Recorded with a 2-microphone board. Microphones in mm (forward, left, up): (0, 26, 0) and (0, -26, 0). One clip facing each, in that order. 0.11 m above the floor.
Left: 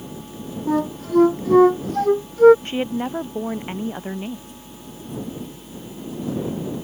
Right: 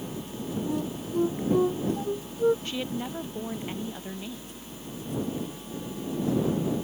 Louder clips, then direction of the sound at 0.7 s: Left 14 dB; 75° left (ahead or behind).